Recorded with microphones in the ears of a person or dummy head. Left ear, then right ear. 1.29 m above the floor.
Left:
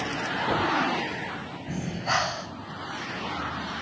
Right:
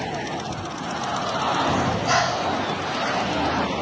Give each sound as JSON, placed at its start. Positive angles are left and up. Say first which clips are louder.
{"t": 1.7, "sound": "breathing", "louder": "right 7 dB", "side_deg": 25, "distance_m": 7.0}